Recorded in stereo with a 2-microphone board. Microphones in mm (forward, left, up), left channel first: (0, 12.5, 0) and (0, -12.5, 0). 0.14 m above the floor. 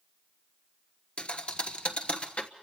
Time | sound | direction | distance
1.2 | a thud | 50° left (ahead or behind) | 1.3 m